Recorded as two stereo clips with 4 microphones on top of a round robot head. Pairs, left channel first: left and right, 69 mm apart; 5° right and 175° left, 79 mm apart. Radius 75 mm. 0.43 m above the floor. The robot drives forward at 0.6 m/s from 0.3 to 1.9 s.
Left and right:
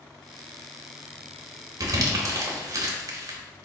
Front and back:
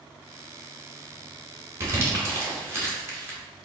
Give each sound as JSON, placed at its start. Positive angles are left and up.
{"t": 1.8, "sound": "crumpling", "azimuth_deg": -125, "distance_m": 0.9}